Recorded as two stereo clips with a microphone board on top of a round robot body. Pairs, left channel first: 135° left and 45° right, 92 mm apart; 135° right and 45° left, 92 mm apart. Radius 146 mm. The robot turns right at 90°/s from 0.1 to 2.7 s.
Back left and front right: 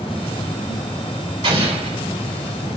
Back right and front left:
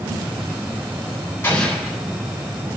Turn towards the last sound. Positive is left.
turn(degrees=45)